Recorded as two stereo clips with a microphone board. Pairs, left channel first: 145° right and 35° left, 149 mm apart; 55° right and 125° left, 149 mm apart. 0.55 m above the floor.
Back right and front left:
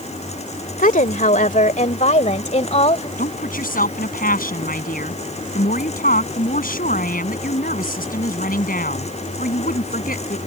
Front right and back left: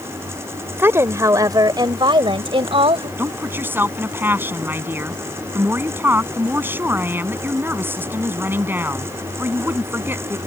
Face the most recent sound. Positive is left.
turn(degrees=-160)